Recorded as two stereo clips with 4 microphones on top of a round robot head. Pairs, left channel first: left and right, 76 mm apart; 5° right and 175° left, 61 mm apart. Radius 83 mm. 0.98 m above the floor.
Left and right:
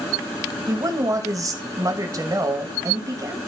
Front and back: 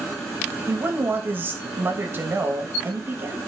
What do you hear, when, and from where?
0.7 s a woman speaking: 130° right, 1.6 m